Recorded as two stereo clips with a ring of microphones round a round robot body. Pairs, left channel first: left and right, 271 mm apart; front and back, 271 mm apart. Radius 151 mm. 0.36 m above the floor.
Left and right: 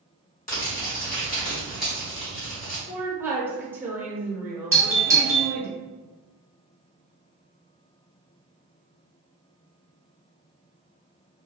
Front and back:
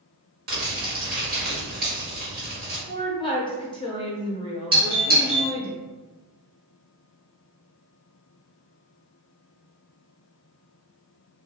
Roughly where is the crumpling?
Behind left.